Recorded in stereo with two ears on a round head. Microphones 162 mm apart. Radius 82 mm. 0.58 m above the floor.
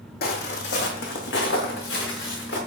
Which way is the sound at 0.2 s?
60° left (ahead or behind).